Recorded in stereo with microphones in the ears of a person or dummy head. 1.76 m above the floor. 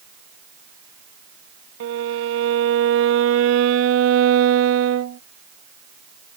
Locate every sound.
1.8 s a violin: 75° right (ahead or behind)